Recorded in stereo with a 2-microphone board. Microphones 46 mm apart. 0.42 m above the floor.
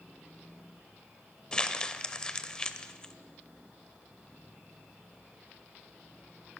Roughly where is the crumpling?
Centre.